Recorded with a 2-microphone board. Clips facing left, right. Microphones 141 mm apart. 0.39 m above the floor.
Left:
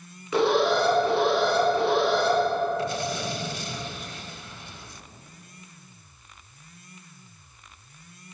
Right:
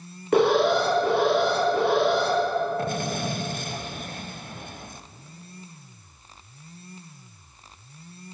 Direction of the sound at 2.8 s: 50° right (ahead or behind).